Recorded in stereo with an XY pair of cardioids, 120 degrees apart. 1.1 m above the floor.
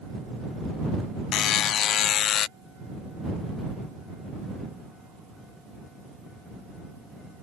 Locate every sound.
1.3 s a buzzer: 65° left